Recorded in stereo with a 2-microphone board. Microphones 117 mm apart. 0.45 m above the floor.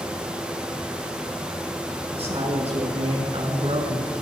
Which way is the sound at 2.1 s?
55° right (ahead or behind).